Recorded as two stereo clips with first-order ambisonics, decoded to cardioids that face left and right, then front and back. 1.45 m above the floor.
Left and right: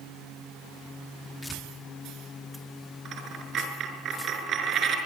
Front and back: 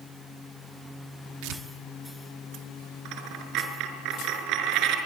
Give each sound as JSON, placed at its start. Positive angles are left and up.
{"t": 1.4, "sound": "tearing paper", "azimuth_deg": 170, "distance_m": 2.0}
{"t": 3.0, "sound": "a dropped coin", "azimuth_deg": -145, "distance_m": 5.0}